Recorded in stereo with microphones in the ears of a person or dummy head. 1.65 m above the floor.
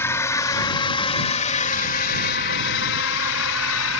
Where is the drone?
15° left (ahead or behind); by 4.0 s 75° left (ahead or behind).